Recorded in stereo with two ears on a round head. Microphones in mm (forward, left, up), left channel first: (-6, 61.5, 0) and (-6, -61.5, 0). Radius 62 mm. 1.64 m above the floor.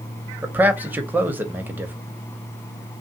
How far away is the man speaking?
About 0.7 m.